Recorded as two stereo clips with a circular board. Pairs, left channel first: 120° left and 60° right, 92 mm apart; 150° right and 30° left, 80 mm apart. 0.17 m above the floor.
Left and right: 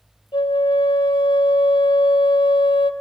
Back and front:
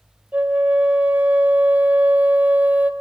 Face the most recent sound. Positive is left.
turn(degrees=100)